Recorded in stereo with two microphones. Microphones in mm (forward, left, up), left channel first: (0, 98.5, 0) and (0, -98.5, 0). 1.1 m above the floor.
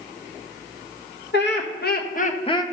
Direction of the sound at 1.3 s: 65° left (ahead or behind).